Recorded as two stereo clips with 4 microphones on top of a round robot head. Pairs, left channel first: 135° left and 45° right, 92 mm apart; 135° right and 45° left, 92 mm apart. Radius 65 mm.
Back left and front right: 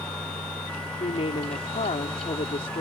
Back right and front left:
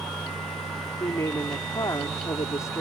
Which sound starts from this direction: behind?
A woman speaking, at 1.0 s.